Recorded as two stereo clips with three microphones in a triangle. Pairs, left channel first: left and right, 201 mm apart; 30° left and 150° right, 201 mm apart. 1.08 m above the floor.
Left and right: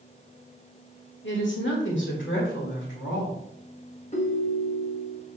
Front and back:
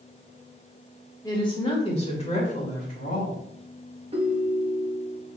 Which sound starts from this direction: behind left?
A ringtone, at 4.1 s.